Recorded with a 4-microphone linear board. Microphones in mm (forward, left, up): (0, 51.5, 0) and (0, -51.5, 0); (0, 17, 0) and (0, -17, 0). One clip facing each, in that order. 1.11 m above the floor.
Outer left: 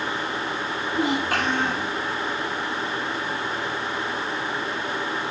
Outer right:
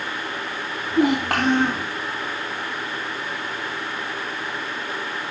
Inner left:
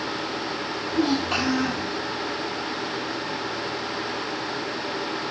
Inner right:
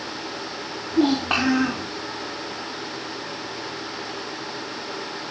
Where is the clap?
No clap in this recording.